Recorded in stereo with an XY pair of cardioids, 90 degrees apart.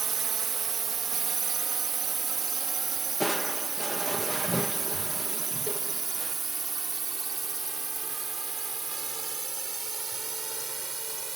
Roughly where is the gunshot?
No gunshot in this recording.